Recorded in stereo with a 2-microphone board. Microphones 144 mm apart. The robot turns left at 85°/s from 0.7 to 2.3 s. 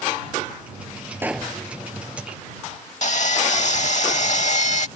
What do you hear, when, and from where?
1.2 s a pop: 165° right; by 1.6 s 165° left
3.0 s sawing: 55° left (ahead or behind)